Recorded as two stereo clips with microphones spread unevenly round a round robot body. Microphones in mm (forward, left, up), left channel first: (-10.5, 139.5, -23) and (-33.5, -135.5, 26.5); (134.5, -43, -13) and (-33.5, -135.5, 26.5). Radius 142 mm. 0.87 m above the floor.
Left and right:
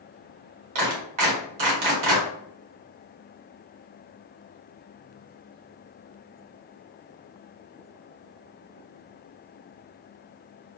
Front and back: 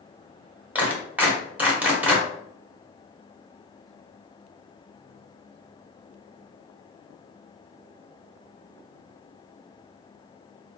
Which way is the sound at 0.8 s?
70° right.